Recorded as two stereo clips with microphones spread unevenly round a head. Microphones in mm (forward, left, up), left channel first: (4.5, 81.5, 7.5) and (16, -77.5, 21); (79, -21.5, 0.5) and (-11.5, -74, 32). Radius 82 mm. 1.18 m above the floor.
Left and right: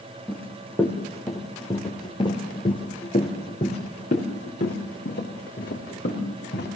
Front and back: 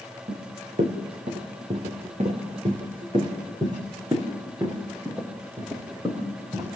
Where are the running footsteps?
Straight behind, 4 m; by 6.7 s 135° left, 5 m.